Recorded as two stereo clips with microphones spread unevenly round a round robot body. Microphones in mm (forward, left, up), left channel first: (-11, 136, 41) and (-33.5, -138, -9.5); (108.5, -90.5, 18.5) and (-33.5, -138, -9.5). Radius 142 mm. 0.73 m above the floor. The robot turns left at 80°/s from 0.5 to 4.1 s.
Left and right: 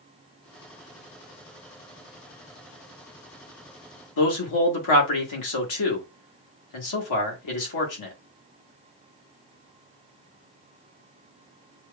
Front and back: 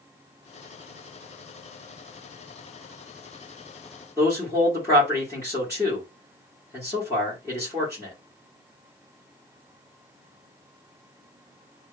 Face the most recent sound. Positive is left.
turn(degrees=100)